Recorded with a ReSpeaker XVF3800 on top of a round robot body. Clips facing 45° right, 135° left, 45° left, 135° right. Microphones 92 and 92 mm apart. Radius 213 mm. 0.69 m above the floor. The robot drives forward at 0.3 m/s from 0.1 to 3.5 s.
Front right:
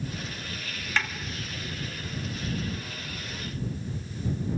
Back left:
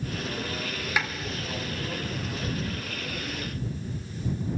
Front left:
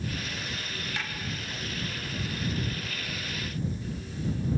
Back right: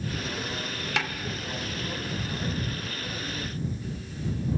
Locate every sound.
1.0 s a snare drum: 145° right, 2 m